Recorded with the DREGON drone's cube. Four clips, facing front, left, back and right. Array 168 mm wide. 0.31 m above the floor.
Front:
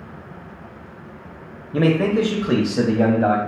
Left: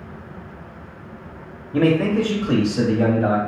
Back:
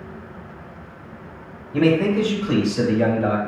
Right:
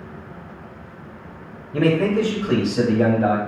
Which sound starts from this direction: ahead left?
A man speaking, at 1.7 s.